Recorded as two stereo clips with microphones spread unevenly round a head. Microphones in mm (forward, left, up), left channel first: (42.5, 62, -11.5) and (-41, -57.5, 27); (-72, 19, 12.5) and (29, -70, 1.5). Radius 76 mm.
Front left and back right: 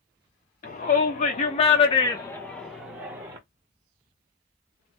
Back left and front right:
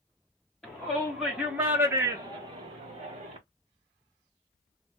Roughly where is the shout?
Ahead left.